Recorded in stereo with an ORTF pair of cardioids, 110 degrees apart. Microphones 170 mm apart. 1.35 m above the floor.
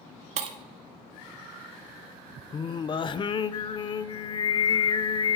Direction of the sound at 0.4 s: 50° right.